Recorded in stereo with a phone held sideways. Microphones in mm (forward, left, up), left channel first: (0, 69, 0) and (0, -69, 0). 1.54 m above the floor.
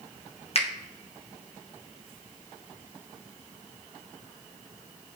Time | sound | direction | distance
0.6 | a finger snap | 50° left (ahead or behind) | 1.3 m